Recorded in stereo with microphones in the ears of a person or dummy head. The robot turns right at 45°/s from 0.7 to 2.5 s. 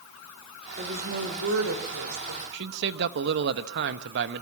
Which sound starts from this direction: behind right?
A woman speaking, at 0.8 s.